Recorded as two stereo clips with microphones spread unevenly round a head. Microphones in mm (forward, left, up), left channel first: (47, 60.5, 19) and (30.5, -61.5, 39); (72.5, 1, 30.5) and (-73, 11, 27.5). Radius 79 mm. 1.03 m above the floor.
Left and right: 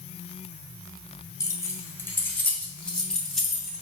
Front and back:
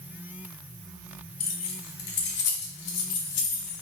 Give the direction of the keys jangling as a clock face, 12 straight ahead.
11 o'clock.